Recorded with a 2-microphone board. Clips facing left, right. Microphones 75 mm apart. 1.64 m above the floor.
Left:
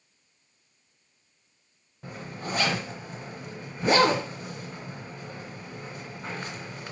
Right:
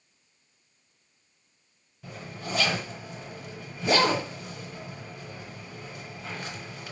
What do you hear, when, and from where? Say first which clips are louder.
2.0 s a zipper: left 2 dB; 45° left (ahead or behind), 1.3 m